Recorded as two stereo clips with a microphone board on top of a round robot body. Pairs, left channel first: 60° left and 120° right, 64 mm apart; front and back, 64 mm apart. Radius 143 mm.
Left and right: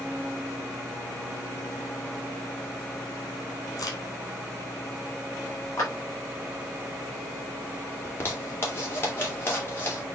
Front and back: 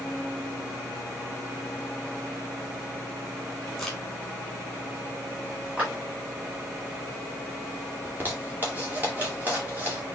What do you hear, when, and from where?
3.8 s a crack: 90° left, 3 m
5.8 s a clap: 105° left, 4 m
8.1 s a zipper: 115° left, 3 m